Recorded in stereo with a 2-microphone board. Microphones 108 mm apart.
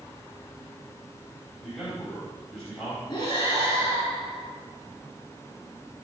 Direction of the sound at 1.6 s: 5° left (ahead or behind).